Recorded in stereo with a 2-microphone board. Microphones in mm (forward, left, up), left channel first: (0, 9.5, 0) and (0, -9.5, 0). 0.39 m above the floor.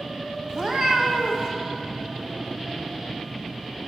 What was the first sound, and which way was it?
A cat meowing, 35° right (ahead or behind).